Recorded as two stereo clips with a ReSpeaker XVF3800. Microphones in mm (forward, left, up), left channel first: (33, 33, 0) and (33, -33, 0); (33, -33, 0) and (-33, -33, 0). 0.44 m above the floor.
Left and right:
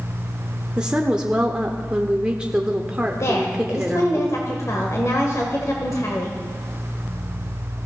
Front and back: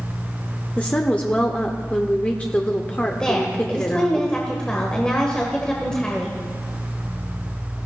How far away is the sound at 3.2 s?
About 1.8 m.